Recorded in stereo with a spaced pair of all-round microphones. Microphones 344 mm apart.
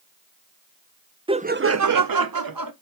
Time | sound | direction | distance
1.3 | laughter | 15° right (ahead or behind) | 0.6 m